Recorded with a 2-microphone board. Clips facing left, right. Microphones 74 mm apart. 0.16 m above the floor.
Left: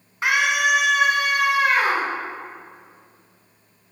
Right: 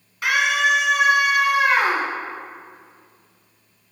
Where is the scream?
30° left (ahead or behind), 1.4 m; by 2.1 s 35° right (ahead or behind), 1.7 m.